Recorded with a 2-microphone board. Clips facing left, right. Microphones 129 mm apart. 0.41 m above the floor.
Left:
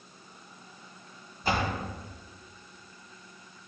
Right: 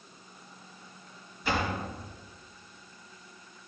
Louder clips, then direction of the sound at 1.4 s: Left 1 dB; 40° left (ahead or behind).